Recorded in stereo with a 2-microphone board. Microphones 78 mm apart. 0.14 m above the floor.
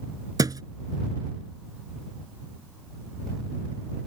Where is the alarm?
I don't hear an alarm.